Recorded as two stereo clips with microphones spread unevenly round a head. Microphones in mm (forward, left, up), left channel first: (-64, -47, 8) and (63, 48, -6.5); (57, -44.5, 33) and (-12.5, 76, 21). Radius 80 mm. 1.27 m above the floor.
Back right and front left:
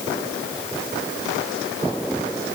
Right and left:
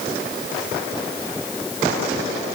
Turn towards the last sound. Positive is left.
No sound to turn to.